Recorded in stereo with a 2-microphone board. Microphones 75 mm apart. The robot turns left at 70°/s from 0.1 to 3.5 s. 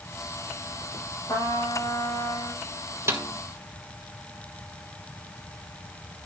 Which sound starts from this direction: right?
A snare drum, at 3.1 s.